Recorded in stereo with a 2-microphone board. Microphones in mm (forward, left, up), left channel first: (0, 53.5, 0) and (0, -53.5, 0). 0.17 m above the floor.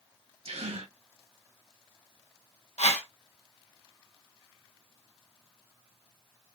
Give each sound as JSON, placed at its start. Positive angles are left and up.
{"t": 0.5, "sound": "a gasp", "side_deg": -70, "distance_m": 1.2}
{"t": 2.8, "sound": "a whoosh", "side_deg": 85, "distance_m": 1.0}